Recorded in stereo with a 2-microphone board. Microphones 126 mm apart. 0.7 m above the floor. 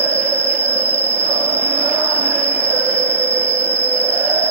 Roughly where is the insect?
Right.